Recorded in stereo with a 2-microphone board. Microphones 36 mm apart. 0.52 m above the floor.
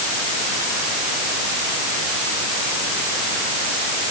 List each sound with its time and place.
Only background noise.